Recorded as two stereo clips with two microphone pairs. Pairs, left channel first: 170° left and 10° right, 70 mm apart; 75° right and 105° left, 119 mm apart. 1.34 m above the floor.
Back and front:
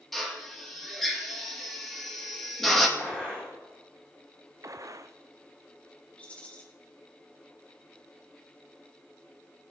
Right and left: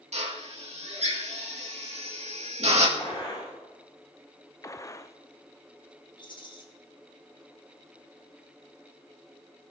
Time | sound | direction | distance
0.1 | a drill | 80° left | 2.5 m
3.0 | a gunshot | 120° right | 6.5 m
4.6 | a gunshot | 20° right | 0.6 m
6.2 | a rattle | 120° right | 1.8 m